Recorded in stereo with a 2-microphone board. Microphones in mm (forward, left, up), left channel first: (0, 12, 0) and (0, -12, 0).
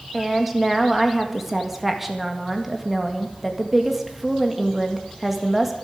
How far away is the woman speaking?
About 1.7 m.